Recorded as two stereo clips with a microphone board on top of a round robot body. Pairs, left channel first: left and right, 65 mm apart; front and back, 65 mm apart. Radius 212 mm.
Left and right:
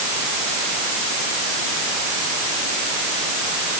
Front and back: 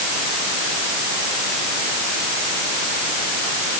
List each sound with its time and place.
Only background noise.